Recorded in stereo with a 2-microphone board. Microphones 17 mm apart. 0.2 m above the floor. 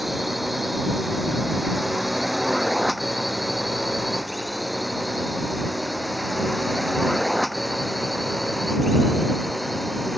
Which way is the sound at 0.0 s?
10° right (ahead or behind).